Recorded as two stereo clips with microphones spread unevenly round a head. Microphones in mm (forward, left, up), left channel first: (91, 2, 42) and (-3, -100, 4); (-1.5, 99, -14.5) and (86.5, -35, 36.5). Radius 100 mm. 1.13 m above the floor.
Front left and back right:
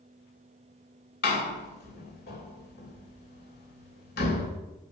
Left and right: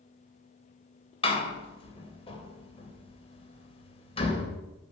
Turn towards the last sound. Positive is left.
turn(degrees=65)